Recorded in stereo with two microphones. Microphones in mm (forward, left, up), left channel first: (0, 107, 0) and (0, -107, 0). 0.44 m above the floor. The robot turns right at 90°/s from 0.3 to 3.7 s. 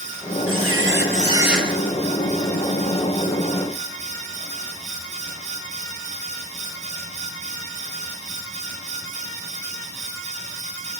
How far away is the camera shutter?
About 3.5 m.